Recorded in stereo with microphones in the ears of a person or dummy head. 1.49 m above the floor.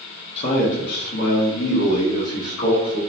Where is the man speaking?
40° left (ahead or behind), 0.7 m; by 3.0 s 85° left, 1.6 m.